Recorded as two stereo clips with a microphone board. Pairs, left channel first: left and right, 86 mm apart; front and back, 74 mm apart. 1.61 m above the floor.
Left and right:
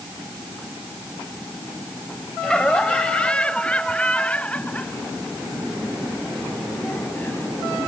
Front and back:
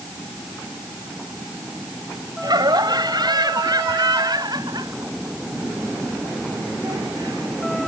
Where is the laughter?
170° left; by 7.8 s 160° left.